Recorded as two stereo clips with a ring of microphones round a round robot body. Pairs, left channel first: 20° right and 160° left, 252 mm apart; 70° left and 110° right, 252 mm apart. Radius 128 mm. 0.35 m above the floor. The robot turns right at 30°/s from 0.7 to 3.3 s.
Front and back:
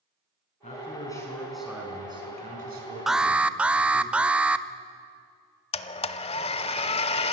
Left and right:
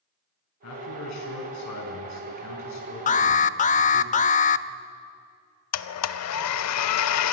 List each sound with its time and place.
0.6 s a man speaking: 40° left, 5 m; by 4.1 s 120° left, 5 m
3.1 s an alarm: 70° left, 0.5 m; by 4.7 s 75° left, 0.5 m
5.7 s a blender: 45° left, 0.7 m